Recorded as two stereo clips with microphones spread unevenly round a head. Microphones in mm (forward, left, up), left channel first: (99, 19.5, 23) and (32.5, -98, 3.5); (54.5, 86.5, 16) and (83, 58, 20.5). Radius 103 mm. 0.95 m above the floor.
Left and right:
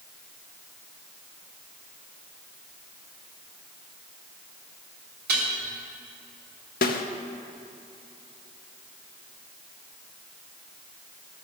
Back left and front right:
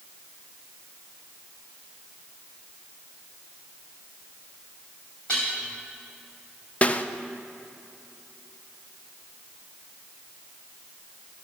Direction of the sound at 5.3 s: 145° right.